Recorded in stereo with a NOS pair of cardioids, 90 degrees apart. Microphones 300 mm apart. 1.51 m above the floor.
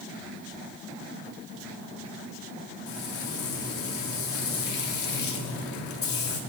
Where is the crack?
I don't hear a crack.